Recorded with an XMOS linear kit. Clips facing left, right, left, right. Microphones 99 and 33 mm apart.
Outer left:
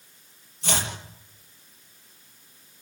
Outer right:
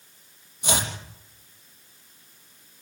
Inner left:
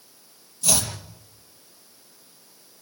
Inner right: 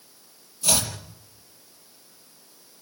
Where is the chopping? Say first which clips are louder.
Outer right 2 dB, even; 15° right (ahead or behind), 5.5 m.